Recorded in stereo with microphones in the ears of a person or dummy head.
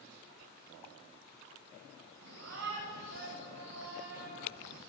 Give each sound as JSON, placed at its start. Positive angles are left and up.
{"t": 2.2, "sound": "a shout", "side_deg": -65, "distance_m": 9.5}